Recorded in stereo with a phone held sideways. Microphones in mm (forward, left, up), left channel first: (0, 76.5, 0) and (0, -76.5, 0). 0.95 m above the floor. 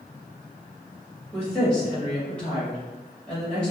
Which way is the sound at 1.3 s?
5° left (ahead or behind).